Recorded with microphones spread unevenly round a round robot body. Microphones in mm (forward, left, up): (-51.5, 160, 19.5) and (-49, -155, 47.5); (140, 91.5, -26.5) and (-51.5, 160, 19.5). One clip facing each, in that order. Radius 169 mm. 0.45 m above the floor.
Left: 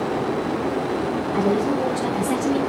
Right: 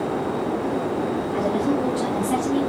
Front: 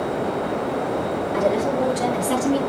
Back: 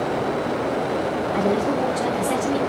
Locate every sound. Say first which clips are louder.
1.3 s a woman speaking: left 2 dB, front 1 dB; 15° left, 7.5 m; by 2.6 s 20° left, 6.5 m